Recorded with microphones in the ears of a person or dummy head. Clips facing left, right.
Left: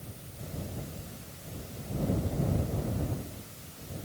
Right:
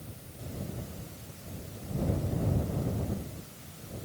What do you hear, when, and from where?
Only background noise.